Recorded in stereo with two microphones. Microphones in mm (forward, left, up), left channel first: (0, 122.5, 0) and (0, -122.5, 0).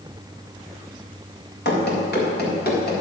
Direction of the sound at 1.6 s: 45° left (ahead or behind).